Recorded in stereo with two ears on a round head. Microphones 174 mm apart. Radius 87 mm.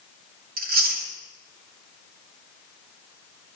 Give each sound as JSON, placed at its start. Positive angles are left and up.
{"t": 0.6, "sound": "chewing", "side_deg": -50, "distance_m": 2.5}